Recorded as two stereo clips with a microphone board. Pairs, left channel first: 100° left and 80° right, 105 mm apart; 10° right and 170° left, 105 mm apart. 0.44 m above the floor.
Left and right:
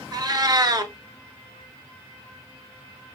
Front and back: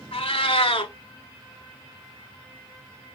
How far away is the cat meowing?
About 0.8 m.